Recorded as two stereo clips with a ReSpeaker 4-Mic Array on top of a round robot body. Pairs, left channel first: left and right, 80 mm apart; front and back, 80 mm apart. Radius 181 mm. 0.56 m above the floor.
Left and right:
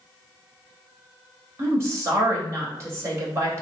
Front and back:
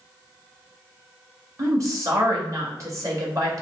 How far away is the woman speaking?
About 1.9 m.